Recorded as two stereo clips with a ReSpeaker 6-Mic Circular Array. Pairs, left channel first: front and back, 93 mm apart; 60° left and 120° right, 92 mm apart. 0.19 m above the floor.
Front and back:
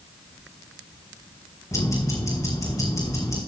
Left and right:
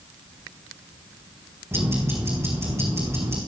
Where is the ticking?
55° right, 4.5 m.